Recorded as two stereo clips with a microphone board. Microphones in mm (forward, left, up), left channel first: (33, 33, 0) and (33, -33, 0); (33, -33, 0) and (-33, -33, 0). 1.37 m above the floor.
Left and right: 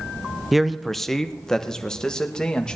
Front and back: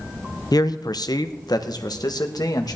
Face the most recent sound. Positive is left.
turn(degrees=10)